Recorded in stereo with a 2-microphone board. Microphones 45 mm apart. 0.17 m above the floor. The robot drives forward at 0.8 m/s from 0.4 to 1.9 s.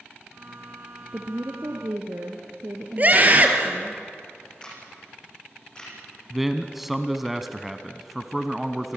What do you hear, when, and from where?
1.1 s a woman speaking: 65° right (ahead or behind), 3 m; by 4.0 s 70° right (ahead or behind), 3 m
3.0 s a scream: 35° right (ahead or behind), 3.5 m
4.6 s a camera shutter: 15° left (ahead or behind), 7.5 m
6.3 s a man speaking: 5° right (ahead or behind), 1.2 m